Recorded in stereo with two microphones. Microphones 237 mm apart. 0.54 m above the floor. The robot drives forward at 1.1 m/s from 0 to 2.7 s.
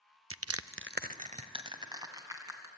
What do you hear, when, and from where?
0.3 s crushing: 65° right (ahead or behind), 0.6 m; by 2.7 s 10° right (ahead or behind), 2.5 m